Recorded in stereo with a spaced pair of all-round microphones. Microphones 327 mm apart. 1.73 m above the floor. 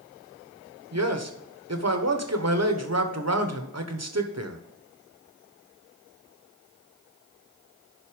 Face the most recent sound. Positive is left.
turn(degrees=-50)  # may be behind; listen again after turning